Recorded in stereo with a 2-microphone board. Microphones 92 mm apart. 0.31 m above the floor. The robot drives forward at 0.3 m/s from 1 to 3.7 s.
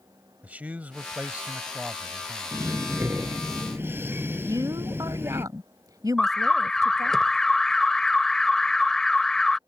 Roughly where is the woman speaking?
Right.